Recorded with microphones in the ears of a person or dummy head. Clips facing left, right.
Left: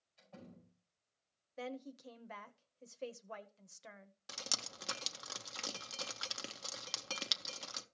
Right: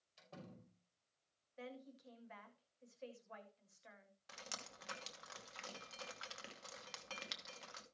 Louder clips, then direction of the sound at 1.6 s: Left 8 dB; 65° left (ahead or behind).